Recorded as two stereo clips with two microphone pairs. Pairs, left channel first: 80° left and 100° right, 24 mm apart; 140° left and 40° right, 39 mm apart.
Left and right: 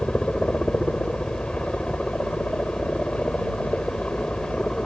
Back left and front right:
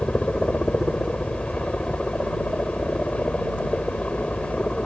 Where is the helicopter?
90° left.